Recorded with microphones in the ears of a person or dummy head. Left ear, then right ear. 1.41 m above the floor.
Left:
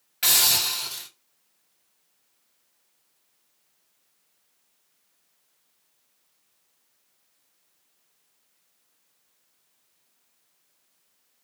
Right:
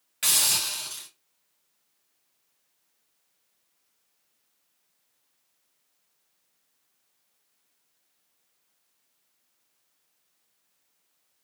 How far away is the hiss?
About 1.6 m.